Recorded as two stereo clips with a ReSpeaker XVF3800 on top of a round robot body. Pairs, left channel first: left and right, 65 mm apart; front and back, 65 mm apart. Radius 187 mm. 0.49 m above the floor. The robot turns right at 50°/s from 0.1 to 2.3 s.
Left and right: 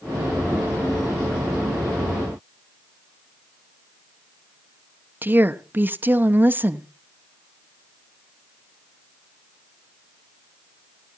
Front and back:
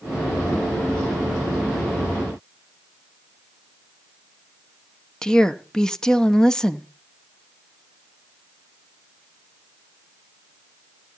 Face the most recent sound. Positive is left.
turn(degrees=-70)